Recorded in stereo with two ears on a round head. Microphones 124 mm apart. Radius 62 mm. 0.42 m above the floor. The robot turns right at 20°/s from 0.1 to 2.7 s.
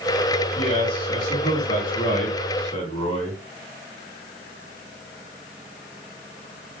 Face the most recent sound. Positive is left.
turn(degrees=120)